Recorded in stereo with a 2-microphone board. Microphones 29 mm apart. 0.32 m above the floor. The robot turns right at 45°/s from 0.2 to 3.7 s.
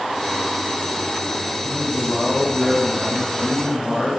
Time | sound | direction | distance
1.6 | a man speaking | 115° left | 2.5 m